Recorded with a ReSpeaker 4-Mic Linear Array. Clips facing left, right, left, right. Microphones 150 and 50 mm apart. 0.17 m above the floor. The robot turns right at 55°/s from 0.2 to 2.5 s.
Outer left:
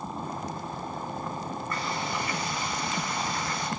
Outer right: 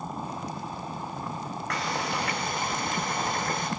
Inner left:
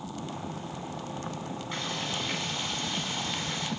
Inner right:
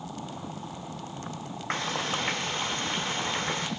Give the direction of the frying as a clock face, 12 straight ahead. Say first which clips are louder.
Outer right 3 dB, inner right 6 dB; 3 o'clock.